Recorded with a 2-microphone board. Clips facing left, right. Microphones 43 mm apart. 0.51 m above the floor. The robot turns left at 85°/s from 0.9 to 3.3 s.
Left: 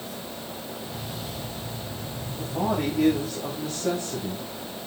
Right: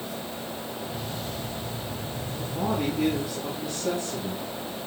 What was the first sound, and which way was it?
A man speaking, 135° left.